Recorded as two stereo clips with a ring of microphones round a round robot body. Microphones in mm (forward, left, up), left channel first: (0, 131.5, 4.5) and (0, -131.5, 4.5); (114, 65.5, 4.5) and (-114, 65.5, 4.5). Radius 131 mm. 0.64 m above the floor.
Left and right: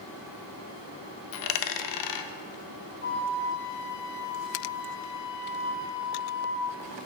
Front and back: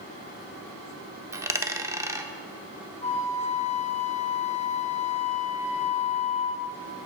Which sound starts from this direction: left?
A dropped coin, at 1.3 s.